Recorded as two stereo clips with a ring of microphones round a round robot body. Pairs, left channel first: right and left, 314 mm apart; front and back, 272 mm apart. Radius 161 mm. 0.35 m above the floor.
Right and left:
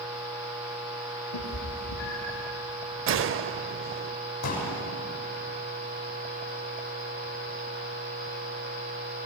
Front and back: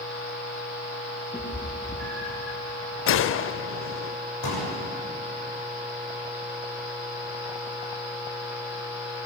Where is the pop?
45° right, 7 m.